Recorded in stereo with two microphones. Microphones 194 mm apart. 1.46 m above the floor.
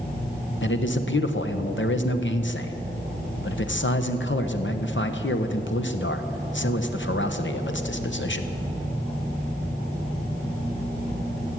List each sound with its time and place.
0.6 s a man speaking: 75° left (ahead or behind), 1.0 m